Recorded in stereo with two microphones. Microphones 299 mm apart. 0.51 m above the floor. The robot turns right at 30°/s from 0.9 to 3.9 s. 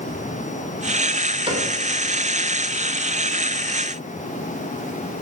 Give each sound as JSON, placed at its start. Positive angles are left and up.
{"t": 1.5, "sound": "a cupboard door", "side_deg": -20, "distance_m": 2.0}